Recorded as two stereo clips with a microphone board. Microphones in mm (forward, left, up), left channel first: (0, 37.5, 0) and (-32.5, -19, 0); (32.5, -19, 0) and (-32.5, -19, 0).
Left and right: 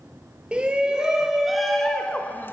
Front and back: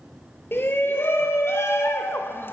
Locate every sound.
0.5 s a shout: 50° right, 2.5 m; by 2.5 s 30° left, 1.3 m